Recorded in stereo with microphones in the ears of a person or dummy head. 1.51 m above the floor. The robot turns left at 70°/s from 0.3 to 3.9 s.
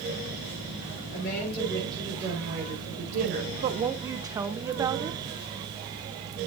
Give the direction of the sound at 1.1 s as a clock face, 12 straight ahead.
10 o'clock.